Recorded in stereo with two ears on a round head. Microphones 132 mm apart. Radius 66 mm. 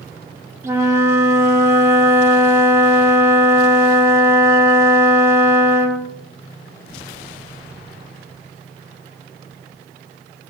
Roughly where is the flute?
Centre.